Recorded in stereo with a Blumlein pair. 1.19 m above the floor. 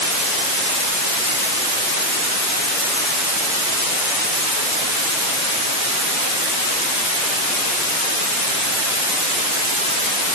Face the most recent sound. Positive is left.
No sound to turn to.